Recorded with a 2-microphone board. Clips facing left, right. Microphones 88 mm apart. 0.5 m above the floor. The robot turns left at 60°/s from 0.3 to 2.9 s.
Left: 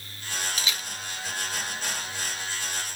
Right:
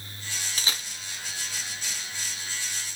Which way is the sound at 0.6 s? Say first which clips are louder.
Left 1 dB; 40° right (ahead or behind).